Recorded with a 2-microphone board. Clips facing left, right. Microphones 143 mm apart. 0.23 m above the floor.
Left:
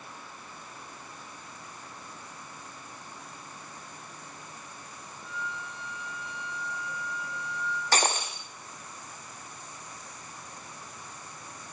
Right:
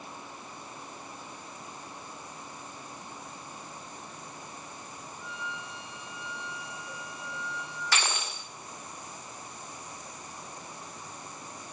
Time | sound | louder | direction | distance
5.2 | a flute | left 3 dB | 50° left (ahead or behind) | 5 m
7.9 | breaking glass | left 5 dB | 40° left (ahead or behind) | 4.5 m